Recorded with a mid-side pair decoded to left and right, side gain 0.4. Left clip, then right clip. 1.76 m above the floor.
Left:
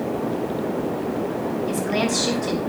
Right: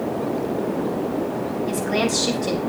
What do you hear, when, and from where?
1.7 s a woman speaking: 10° right, 6 m